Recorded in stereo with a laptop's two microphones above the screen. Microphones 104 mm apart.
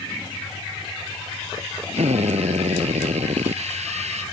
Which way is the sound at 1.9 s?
80° right.